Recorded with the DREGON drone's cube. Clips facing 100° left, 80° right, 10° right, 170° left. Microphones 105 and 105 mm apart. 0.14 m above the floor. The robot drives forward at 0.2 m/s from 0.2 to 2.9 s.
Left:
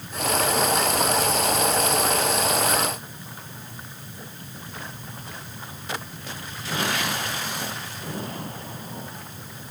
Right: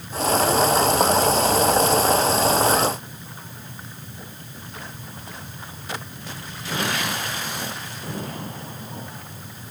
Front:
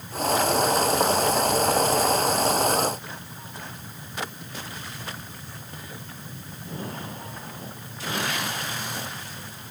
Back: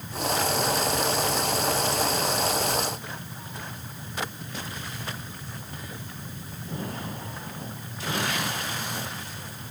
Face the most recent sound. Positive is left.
No sound to turn to.